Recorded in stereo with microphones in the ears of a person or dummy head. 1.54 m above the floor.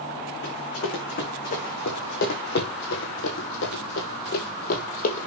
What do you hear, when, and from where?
0.4 s running footsteps: 40° left (ahead or behind), 4.5 m; by 5.3 s 45° left (ahead or behind), 2.5 m